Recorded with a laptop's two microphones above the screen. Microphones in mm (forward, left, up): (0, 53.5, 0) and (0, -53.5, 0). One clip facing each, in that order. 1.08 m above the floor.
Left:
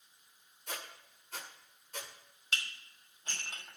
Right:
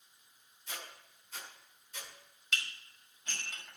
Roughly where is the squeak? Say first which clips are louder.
Left 2 dB; left.